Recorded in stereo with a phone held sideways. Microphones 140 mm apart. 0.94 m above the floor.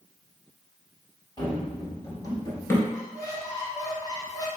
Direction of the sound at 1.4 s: 30° left (ahead or behind).